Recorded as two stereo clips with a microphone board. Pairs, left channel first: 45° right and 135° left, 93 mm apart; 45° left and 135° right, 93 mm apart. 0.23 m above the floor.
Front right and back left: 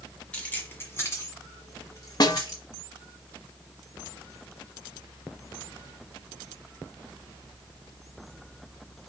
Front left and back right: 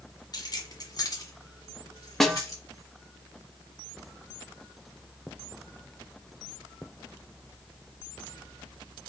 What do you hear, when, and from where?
0.3 s keys jangling: 25° left, 1.4 m; by 2.6 s 5° right, 3 m
2.2 s a snare drum: 40° right, 0.7 m